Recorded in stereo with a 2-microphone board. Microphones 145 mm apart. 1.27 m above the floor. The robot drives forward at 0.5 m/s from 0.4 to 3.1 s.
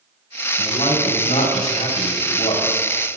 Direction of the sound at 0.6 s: 50° left (ahead or behind).